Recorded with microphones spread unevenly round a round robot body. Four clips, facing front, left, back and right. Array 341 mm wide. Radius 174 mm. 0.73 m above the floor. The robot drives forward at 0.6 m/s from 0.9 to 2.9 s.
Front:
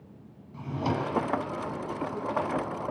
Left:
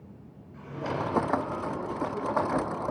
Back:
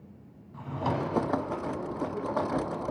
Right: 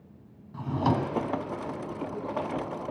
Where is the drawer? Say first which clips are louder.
Right 6 dB, front 1 dB; 80° right, 1.3 m; by 1.2 s 85° right, 1.3 m.